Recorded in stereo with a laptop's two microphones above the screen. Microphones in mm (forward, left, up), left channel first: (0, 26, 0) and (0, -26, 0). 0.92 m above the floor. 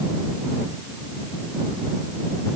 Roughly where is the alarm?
No alarm in this recording.